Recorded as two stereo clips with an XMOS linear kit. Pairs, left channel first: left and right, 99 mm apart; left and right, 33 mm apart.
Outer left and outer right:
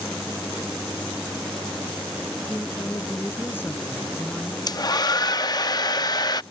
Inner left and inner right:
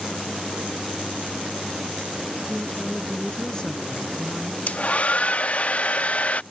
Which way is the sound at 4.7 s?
45° left (ahead or behind).